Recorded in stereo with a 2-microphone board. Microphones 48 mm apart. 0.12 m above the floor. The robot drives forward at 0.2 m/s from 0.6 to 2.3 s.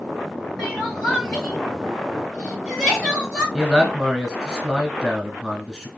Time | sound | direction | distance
0.6 | crying | centre (ahead or behind) | 2.5 m
3.5 | a man speaking | 15° right (ahead or behind) | 1.1 m